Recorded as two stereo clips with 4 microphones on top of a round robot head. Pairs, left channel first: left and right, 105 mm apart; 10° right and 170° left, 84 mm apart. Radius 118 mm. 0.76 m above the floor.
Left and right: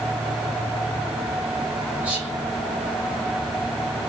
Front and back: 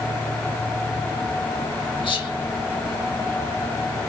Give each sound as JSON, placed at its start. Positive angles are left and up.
{"t": 2.0, "sound": "whispering", "azimuth_deg": -15, "distance_m": 2.0}